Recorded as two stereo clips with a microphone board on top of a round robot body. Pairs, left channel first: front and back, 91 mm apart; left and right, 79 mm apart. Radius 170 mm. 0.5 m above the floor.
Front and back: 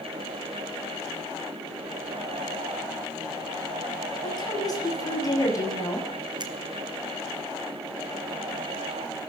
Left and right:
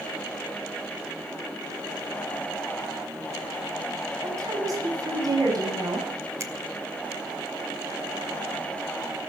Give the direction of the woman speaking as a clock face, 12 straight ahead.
1 o'clock.